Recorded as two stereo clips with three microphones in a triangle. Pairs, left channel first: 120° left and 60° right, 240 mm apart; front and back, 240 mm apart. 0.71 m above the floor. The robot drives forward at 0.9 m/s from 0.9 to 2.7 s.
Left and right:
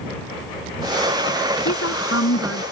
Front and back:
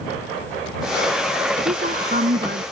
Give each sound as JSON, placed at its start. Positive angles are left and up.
{"t": 1.6, "sound": "a woman speaking", "azimuth_deg": 125}